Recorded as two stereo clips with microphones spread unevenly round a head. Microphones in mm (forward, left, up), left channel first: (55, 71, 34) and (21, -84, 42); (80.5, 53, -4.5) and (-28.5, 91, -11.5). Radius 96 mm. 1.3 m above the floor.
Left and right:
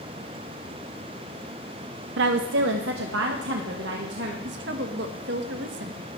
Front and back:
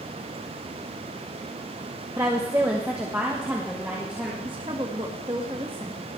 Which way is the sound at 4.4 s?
130° right.